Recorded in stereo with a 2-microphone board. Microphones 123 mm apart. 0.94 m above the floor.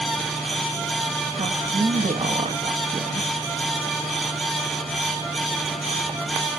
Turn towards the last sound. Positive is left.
turn(degrees=-60)  # may be behind; listen again after turning